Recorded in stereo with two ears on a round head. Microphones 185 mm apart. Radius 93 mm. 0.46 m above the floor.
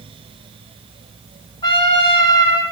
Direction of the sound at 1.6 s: 20° left (ahead or behind).